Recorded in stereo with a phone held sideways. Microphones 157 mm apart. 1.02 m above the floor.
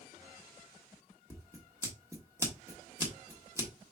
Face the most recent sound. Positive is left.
turn(degrees=-20)  # may be behind; listen again after turning